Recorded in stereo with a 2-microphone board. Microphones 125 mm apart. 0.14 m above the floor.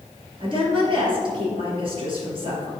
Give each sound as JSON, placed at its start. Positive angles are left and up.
{"t": 0.4, "sound": "a woman speaking", "side_deg": -40, "distance_m": 2.5}